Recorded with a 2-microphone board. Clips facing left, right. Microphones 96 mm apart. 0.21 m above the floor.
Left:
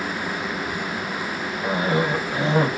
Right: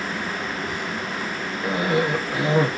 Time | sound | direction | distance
1.6 | a cough | 25° left (ahead or behind) | 1.1 m